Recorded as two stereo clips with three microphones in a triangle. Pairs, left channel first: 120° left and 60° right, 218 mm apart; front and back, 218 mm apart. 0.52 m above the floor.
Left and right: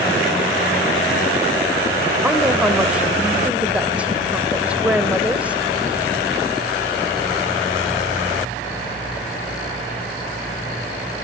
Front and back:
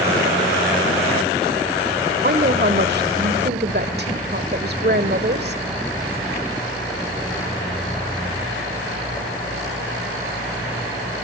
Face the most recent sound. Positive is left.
turn(degrees=-145)